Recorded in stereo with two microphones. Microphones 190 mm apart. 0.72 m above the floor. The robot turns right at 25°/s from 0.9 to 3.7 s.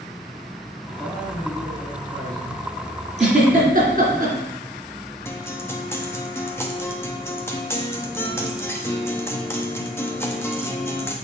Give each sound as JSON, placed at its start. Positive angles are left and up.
{"t": 0.9, "sound": "a man speaking", "azimuth_deg": 170, "distance_m": 4.0}
{"t": 3.2, "sound": "a giggle", "side_deg": -35, "distance_m": 2.5}
{"t": 5.2, "sound": "a guitar", "side_deg": 15, "distance_m": 0.9}